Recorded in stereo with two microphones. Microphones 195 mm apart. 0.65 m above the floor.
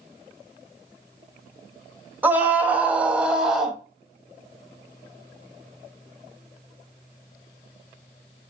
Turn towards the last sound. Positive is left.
turn(degrees=0)  # may be behind; listen again after turning